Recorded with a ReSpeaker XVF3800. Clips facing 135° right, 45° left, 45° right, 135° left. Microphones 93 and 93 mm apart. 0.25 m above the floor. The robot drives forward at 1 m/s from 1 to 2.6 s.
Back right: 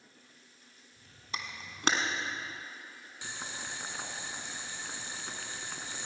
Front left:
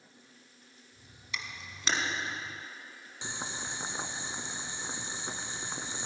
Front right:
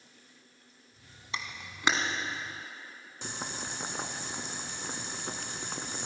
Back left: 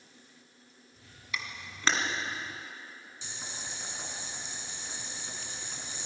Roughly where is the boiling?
Ahead.